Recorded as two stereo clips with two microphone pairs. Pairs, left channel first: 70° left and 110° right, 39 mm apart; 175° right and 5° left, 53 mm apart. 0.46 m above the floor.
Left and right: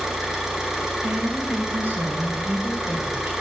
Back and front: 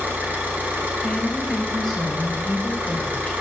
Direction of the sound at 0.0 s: 35° right.